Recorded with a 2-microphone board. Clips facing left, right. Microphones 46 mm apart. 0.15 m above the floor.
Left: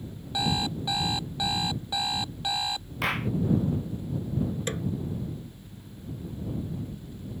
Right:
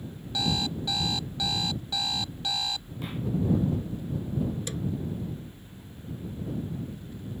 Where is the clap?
75° left (ahead or behind).